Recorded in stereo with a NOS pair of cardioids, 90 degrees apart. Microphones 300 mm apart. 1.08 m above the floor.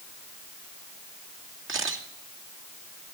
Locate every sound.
1.7 s a camera shutter: 40° right, 2.5 m